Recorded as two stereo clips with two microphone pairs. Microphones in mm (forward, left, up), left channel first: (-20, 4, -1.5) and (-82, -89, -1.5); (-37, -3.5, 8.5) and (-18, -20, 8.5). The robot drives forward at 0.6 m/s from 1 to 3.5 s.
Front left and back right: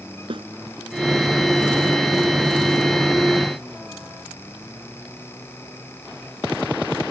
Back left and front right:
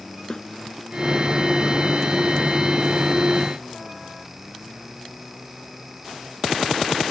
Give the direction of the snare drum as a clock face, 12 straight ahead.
6 o'clock.